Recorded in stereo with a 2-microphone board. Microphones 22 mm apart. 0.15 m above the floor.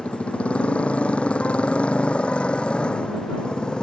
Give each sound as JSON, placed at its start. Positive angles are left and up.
{"t": 0.0, "sound": "a motorcycle", "side_deg": 80}